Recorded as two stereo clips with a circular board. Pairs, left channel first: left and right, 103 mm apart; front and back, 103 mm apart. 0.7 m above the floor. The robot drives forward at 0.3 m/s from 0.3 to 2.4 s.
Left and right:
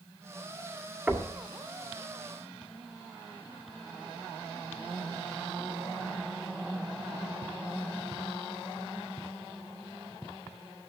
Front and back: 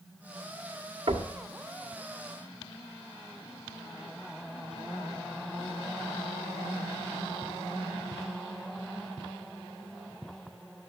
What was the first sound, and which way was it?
Knocking, 160° right.